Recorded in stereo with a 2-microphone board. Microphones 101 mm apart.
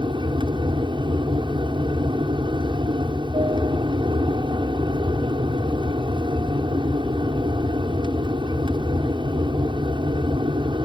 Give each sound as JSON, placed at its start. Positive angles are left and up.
{"t": 0.0, "sound": "an aircraft", "side_deg": -55}